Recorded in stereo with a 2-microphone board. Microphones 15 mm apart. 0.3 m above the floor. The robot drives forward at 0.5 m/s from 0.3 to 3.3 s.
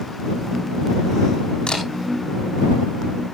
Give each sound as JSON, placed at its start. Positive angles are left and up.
{"t": 1.7, "sound": "a camera shutter", "side_deg": 85, "distance_m": 6.5}